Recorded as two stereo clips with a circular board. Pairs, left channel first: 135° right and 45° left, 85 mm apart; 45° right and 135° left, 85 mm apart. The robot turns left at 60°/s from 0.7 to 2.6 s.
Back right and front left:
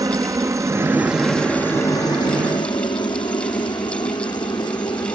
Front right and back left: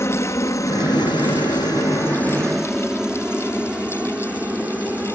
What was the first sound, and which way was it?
A helicopter, 5° left.